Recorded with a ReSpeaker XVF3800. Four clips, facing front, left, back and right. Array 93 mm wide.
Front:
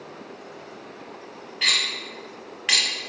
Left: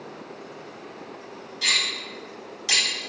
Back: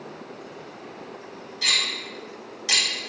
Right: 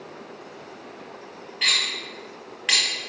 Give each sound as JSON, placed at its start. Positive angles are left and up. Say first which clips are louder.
{"t": 1.6, "sound": "cutlery clinking", "louder": "right 1 dB, front 1 dB", "azimuth_deg": -45, "distance_m": 1.2}